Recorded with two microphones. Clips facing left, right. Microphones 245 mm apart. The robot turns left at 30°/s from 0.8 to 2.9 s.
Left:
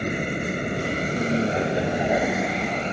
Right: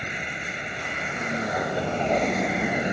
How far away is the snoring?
No snoring in this recording.